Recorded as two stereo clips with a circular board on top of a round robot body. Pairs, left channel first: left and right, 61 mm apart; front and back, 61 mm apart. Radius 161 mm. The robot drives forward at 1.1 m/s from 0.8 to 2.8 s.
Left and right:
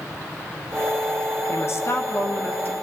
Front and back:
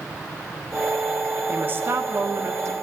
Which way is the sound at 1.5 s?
125° left.